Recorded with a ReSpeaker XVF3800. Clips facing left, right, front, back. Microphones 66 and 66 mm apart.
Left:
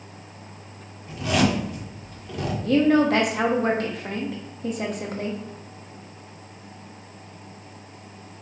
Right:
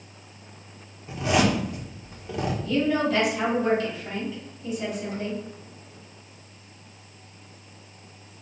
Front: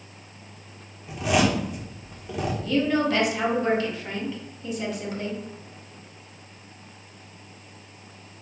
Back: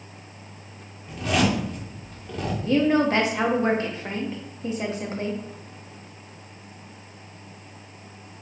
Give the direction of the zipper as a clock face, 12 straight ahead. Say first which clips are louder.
Even, front 1 dB; 2 o'clock.